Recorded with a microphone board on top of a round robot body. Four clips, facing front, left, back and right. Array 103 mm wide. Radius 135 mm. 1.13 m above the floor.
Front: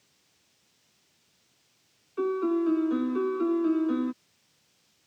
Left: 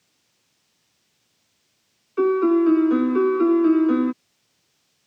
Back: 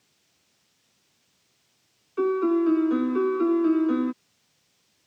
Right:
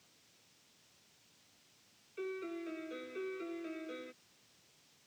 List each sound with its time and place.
2.2 s a piano: 105° left